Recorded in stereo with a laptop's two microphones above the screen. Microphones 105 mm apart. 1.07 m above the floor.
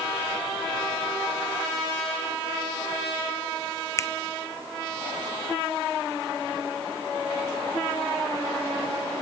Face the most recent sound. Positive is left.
turn(degrees=25)  # may be behind; listen again after turning